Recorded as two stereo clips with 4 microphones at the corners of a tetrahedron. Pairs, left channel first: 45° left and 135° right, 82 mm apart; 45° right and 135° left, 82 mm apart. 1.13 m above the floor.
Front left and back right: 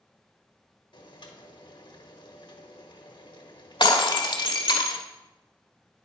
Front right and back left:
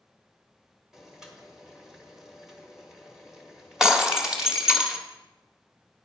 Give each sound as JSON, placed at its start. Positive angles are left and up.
{"t": 0.9, "sound": "boiling", "azimuth_deg": 50, "distance_m": 1.5}
{"t": 3.8, "sound": "breaking glass", "azimuth_deg": 55, "distance_m": 1.5}